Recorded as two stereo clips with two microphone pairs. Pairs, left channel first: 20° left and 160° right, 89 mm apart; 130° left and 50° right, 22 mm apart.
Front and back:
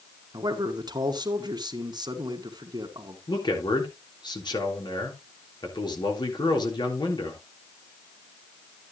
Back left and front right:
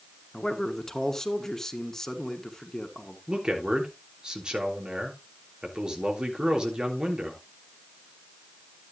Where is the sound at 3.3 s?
5° right, 3.5 m.